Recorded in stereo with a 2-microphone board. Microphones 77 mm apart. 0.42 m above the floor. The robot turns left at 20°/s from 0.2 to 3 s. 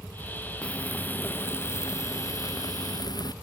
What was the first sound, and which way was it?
Frying, 165° left.